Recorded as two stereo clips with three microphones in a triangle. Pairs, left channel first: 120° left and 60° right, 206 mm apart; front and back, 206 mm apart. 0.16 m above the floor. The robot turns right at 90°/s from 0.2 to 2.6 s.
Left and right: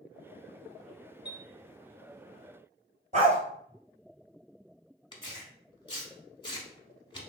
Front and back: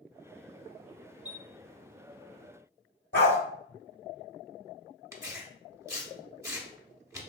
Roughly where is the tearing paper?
Behind left.